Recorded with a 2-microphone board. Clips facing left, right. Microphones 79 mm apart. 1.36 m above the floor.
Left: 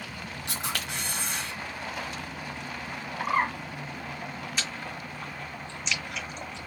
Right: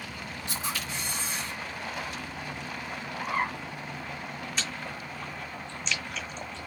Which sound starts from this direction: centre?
Chewing, at 4.6 s.